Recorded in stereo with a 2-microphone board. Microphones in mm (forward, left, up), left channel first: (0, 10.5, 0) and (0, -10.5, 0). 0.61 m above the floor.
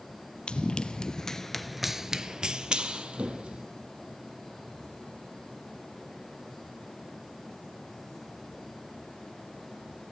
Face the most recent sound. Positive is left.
turn(degrees=-55)  # may be behind; listen again after turning